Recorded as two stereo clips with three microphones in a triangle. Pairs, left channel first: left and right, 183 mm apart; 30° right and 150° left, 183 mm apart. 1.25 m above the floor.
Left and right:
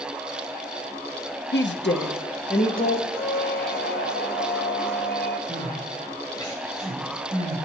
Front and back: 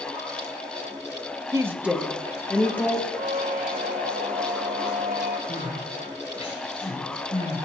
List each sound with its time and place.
1.5 s a woman speaking: 80° left, 0.9 m; by 3.1 s 45° left, 1.7 m
3.2 s a squeak: 115° left, 0.9 m
5.5 s crying: 20° left, 4 m